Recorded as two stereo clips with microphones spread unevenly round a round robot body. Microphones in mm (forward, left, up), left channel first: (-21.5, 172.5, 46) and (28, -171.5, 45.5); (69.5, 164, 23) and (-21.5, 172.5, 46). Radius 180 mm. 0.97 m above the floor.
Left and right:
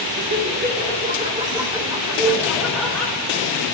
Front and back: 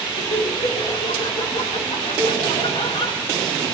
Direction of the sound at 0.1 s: 15° right.